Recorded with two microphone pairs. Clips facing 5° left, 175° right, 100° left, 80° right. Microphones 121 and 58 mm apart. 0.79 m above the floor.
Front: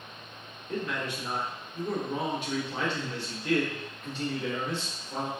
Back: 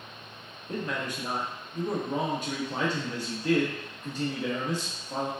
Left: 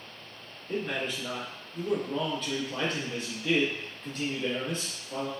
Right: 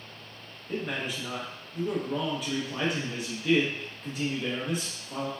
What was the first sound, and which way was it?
A man speaking, 160° right.